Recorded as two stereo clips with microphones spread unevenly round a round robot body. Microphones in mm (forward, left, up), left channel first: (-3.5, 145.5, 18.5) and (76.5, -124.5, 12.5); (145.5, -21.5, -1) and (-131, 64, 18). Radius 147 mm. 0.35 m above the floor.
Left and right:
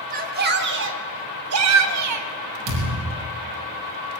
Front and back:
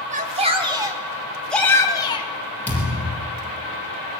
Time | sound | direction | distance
0.1 | a shout | 130° right | 3 m
2.7 | a thud | 100° right | 5.5 m